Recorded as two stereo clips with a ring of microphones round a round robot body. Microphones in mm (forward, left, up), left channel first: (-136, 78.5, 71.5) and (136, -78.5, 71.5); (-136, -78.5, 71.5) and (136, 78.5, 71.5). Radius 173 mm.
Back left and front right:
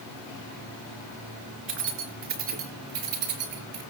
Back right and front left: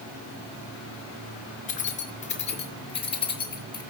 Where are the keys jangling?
85° right, 4.5 m; by 3.8 s 70° right, 5 m.